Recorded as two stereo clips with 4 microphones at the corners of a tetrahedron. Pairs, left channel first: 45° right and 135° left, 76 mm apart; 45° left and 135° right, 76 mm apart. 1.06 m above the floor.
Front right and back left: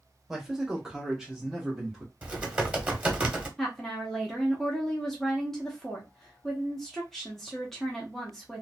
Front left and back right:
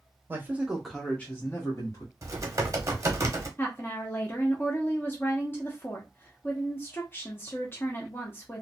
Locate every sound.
0.3 s a man speaking: 145° right, 0.8 m; by 2.1 s 50° left, 1.0 m
2.2 s typing on a keyboard: 160° right, 0.8 m
3.6 s a woman speaking: 35° left, 0.7 m